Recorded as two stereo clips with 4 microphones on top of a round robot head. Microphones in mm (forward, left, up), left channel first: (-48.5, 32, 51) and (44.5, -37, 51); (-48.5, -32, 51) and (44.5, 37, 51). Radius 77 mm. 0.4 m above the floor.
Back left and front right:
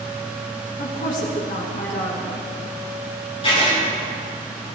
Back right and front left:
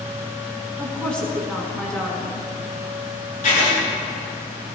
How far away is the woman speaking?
About 4.5 m.